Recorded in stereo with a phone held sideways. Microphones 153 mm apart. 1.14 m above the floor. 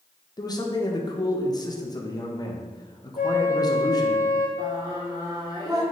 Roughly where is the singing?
Right.